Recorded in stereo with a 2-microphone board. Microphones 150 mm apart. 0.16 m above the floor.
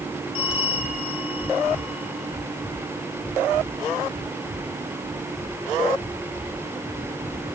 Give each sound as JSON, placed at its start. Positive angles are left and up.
{"t": 0.3, "sound": "a bell", "side_deg": 40, "distance_m": 5.0}